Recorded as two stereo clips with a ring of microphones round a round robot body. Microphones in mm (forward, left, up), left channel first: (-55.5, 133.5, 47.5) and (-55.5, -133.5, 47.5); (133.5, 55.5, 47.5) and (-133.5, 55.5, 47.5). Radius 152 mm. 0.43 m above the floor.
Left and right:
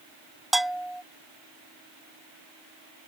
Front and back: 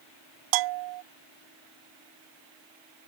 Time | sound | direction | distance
0.5 | a bell | straight behind | ?